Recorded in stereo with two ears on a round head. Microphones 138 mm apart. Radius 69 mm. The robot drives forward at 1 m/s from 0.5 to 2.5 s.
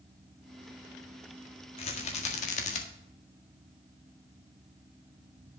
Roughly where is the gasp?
No gasp in this recording.